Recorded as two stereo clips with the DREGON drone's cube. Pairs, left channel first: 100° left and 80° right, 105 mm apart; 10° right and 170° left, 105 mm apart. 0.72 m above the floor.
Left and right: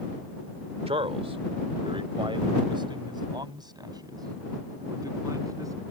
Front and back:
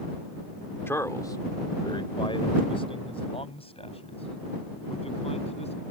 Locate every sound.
0.9 s a man speaking: 75° right; by 5.8 s 20° right